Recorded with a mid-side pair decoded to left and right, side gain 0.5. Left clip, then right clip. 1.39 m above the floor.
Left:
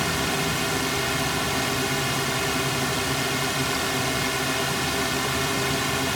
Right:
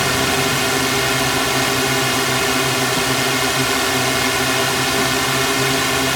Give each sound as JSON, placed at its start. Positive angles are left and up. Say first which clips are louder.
{"t": 0.0, "sound": "a drone", "louder": "right 8 dB", "azimuth_deg": -50}